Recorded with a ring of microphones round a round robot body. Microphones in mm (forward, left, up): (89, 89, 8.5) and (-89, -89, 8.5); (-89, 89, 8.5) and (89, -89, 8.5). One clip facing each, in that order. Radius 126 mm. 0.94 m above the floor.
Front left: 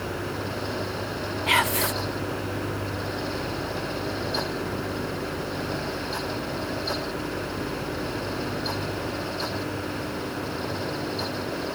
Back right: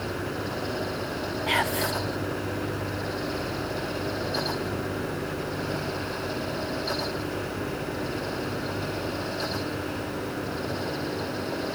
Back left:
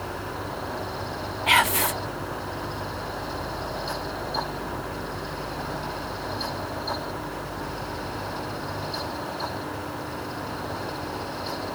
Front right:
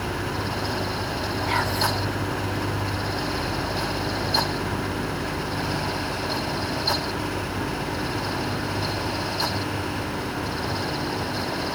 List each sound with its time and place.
1.5 s whispering: 115° left, 0.6 m